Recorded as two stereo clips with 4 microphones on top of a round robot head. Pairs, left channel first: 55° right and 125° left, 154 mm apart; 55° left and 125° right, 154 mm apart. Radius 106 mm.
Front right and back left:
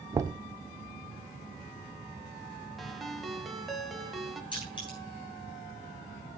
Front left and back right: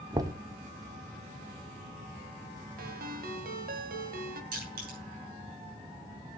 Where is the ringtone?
145° right, 1.3 m.